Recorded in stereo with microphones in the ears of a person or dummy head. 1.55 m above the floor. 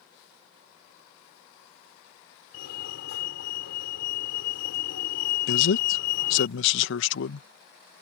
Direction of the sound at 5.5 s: 75° left (ahead or behind).